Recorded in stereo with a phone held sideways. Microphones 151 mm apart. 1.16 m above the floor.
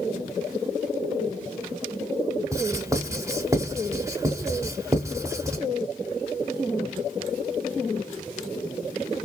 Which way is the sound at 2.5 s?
20° right (ahead or behind).